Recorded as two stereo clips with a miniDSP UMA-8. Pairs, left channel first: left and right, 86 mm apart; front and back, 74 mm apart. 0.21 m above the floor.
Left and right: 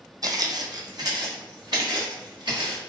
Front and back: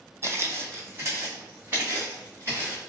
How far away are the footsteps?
About 0.5 m.